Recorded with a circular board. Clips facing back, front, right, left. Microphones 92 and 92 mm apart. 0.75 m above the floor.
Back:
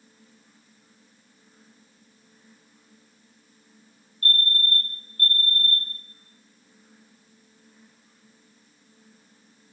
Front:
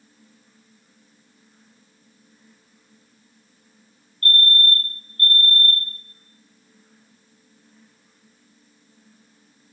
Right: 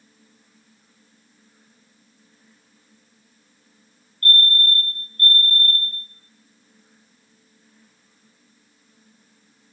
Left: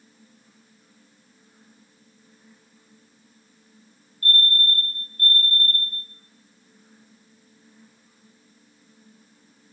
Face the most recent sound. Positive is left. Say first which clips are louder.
# front 5 dB, right 2 dB
turn(degrees=140)